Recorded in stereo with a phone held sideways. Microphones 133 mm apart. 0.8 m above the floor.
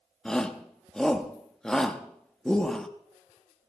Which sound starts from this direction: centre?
A shout, at 0.2 s.